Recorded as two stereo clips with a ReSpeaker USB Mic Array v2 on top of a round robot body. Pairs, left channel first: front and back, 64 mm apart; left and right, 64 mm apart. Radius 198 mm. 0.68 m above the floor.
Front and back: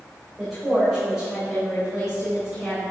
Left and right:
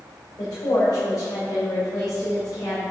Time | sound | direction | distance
0.4 | a woman speaking | 90° left | 3.5 m